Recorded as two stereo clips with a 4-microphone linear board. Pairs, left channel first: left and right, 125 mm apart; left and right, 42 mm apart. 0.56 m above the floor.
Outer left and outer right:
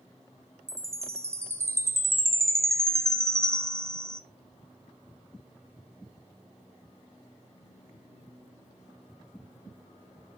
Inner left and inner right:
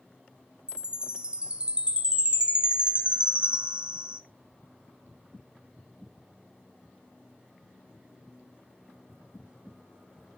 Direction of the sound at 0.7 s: 20° right (ahead or behind).